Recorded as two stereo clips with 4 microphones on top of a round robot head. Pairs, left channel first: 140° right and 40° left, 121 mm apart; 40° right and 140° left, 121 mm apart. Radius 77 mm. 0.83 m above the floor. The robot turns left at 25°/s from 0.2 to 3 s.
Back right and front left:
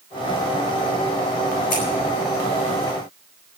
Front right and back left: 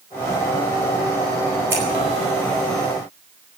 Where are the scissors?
145° right, 9 m; by 1.8 s 150° right, 9 m.